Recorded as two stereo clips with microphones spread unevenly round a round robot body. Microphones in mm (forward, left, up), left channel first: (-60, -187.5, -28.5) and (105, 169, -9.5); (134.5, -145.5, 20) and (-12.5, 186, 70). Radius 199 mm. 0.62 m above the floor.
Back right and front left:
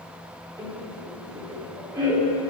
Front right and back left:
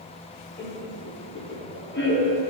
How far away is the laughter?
About 1.7 m.